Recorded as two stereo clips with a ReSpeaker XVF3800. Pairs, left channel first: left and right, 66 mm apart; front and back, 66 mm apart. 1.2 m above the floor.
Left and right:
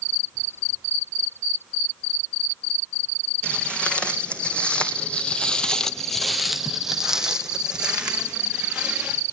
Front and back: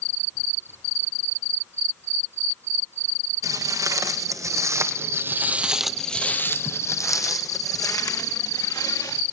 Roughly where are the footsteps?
Behind.